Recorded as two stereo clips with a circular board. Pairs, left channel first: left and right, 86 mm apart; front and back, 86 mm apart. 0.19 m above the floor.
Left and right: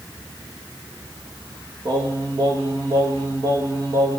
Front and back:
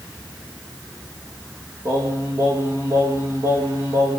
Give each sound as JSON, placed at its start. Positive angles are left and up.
{"t": 1.9, "sound": "singing", "azimuth_deg": -130, "distance_m": 4.5}